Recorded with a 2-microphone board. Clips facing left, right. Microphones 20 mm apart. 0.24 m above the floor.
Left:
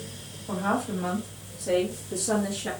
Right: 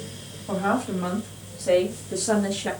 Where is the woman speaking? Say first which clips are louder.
Right 3 dB; 20° right (ahead or behind), 1.3 m; by 2.7 s 25° right (ahead or behind), 1.3 m.